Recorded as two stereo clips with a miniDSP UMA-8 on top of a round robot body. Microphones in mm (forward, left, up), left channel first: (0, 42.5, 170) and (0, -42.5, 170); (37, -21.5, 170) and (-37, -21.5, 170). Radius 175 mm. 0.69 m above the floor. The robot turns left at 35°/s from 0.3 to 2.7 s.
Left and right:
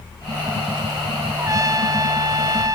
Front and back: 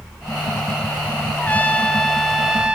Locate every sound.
1.4 s a trumpet: 60° right, 0.7 m; by 2.8 s 105° right, 0.7 m